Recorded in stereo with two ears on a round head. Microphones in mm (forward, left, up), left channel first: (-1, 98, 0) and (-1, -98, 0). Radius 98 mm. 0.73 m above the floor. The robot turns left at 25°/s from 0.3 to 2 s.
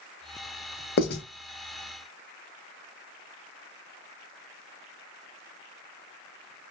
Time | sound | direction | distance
1.0 | writing | 45° left (ahead or behind) | 0.6 m